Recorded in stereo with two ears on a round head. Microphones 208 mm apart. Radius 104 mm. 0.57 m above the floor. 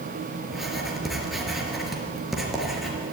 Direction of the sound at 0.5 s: Centre (ahead or behind).